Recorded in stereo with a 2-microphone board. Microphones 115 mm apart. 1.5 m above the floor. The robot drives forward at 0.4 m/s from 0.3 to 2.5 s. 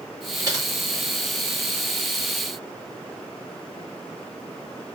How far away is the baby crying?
I don't hear a baby crying.